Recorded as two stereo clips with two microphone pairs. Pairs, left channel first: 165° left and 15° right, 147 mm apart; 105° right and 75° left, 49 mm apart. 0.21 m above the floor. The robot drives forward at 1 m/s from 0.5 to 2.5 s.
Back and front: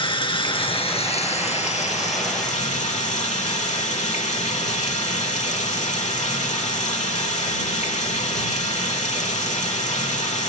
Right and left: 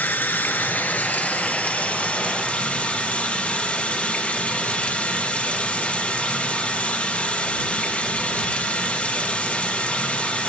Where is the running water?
145° right, 1.9 m; by 10.5 s 165° right, 3.5 m.